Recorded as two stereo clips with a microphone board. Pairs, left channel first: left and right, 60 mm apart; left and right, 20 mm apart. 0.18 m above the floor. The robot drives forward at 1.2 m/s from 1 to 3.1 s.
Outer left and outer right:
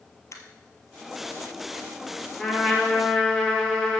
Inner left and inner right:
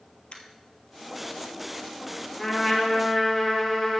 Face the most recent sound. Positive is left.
turn(degrees=15)  # may be behind; listen again after turning